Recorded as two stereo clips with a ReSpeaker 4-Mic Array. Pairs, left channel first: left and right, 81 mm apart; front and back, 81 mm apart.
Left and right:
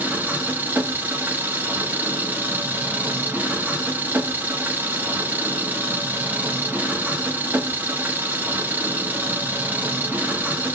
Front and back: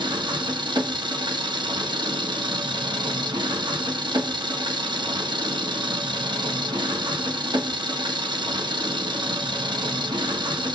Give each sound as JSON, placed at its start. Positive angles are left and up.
{"t": 0.0, "sound": "an engine running", "azimuth_deg": -155, "distance_m": 0.8}